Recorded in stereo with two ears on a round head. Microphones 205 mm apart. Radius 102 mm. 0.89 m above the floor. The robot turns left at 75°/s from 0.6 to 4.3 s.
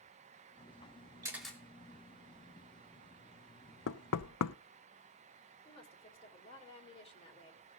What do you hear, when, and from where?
1.2 s a camera shutter: 15° right (ahead or behind), 3 m; by 1.6 s 10° left (ahead or behind), 3 m
3.9 s knocking: 60° left (ahead or behind), 0.5 m; by 4.6 s 80° left, 0.5 m
5.7 s a woman speaking: 25° left (ahead or behind), 3.5 m